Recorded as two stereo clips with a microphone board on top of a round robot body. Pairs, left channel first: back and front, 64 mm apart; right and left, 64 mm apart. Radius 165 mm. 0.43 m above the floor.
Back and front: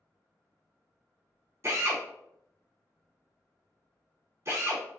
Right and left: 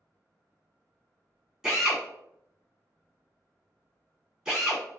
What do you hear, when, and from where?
1.6 s a drill: 15° left, 1.7 m